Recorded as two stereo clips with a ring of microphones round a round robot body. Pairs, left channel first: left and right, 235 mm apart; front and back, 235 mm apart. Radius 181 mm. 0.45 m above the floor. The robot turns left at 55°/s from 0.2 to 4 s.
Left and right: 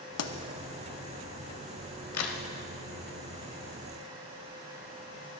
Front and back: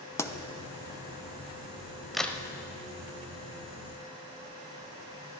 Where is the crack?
90° left, 0.9 m; by 2.4 s 75° left, 0.9 m.